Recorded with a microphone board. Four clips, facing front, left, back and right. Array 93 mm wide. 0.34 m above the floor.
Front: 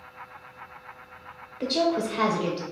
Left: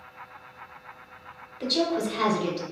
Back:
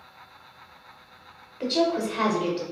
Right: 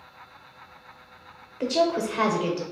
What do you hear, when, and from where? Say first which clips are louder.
1.6 s a woman speaking: right 3 dB, back 1 dB; 95° right, 0.9 m